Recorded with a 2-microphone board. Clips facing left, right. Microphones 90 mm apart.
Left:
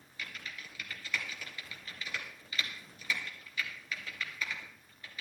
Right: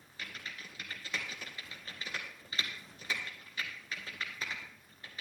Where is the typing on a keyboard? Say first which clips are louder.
Left 1 dB; 35° right (ahead or behind), 2 m.